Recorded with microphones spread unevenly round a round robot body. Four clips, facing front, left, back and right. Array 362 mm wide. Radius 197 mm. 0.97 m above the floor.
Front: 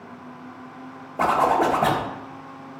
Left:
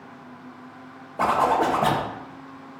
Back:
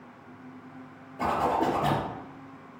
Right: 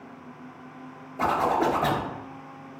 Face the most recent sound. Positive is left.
turn(degrees=25)